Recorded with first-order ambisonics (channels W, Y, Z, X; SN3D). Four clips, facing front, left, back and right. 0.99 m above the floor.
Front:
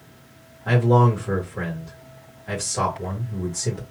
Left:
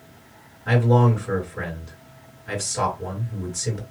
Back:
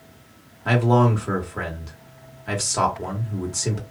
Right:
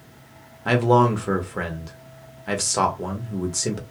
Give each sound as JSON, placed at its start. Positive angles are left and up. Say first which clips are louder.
{"t": 0.7, "sound": "a man speaking", "louder": "right 2 dB, even", "azimuth_deg": -115, "distance_m": 1.6}